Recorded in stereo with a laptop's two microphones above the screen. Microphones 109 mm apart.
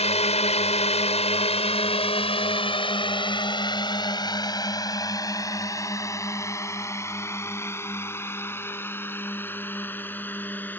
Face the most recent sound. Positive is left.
turn(degrees=15)  # may be behind; listen again after turning